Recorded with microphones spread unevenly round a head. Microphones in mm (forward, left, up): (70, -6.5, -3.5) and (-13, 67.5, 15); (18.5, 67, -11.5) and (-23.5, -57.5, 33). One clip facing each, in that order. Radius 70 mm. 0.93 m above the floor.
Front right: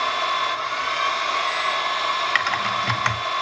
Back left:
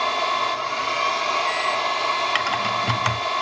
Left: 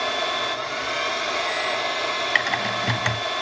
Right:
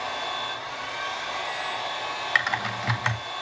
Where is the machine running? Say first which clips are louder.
Back left 1 dB, left 6 dB; 90° left, 0.8 m.